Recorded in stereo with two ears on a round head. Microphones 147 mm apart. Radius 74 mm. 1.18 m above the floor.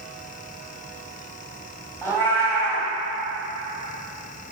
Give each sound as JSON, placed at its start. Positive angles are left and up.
{"t": 2.0, "sound": "a cat meowing", "side_deg": 15, "distance_m": 2.5}